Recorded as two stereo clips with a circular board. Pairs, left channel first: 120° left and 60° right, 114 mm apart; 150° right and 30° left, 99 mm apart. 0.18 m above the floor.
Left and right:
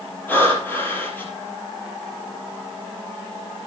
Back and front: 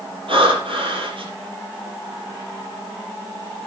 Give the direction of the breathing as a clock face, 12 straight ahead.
10 o'clock.